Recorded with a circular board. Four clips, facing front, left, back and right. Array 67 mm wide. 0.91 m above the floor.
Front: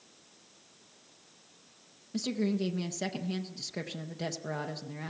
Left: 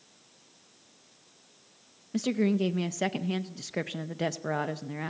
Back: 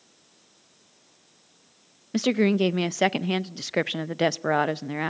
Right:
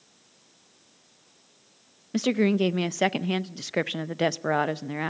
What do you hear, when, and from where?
2.1 s a woman speaking: 150° right, 0.5 m